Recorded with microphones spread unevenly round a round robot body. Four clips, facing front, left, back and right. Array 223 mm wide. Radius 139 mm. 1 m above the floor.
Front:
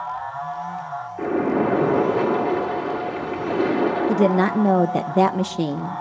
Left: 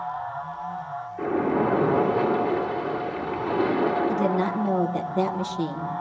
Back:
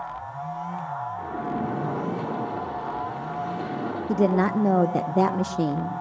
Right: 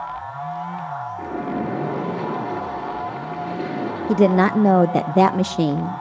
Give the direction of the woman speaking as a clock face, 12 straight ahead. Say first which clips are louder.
Right 7 dB, even; 2 o'clock.